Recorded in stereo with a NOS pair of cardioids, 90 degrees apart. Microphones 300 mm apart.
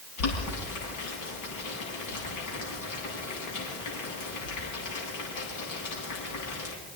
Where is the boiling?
70° left, 9.5 m.